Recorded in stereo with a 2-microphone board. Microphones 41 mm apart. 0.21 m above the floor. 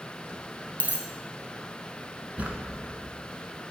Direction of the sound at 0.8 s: 45° right (ahead or behind).